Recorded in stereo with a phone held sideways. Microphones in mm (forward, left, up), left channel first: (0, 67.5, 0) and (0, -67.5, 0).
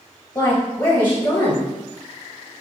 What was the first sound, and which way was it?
A woman speaking, 15° left (ahead or behind).